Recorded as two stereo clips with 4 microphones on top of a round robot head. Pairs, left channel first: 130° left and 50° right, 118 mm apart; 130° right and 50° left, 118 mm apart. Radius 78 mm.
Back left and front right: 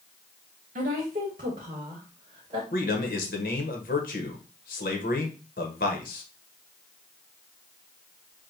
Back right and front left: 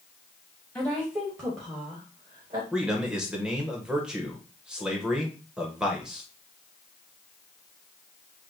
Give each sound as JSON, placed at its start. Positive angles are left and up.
{"t": 0.8, "sound": "a woman speaking", "azimuth_deg": -45, "distance_m": 1.2}
{"t": 2.7, "sound": "a man speaking", "azimuth_deg": 135, "distance_m": 1.0}